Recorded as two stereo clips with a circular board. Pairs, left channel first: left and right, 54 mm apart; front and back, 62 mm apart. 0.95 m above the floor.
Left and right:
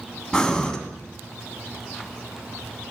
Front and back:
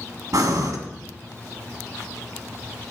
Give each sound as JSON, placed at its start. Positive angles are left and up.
{"t": 0.3, "sound": "breathing", "azimuth_deg": 170, "distance_m": 1.5}